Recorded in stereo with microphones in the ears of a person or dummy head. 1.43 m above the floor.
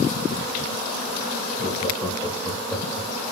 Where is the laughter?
40° left (ahead or behind), 3.5 m; by 3.1 s 5° left (ahead or behind), 3 m.